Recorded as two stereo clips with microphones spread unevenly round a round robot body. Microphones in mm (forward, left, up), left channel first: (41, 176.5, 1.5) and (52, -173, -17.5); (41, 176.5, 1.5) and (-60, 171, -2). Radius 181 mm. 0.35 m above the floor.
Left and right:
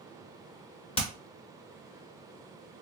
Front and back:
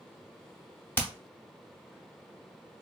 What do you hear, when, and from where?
1.0 s hammering: 40° left, 0.8 m